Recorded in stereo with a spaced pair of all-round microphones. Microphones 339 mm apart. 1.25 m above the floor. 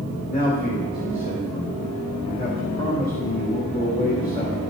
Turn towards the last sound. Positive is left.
turn(degrees=25)  # may be behind; listen again after turning